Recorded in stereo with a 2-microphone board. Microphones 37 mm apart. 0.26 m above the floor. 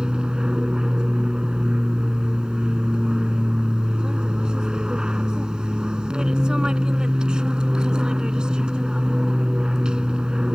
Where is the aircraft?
25° right (ahead or behind).